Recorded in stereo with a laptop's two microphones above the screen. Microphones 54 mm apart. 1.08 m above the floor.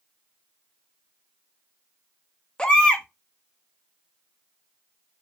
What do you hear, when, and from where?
2.6 s a baby crying: 15° left (ahead or behind), 0.6 m